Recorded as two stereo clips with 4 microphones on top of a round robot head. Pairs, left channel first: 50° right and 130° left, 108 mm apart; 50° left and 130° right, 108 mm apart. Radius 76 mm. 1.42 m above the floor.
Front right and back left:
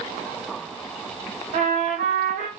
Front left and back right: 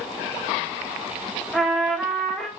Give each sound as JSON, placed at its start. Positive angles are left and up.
{"t": 1.5, "sound": "a trumpet", "azimuth_deg": 140, "distance_m": 2.5}